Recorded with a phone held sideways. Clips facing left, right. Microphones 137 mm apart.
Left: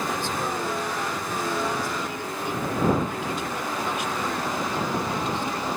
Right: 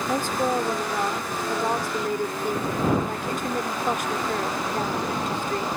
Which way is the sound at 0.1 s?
45° right (ahead or behind).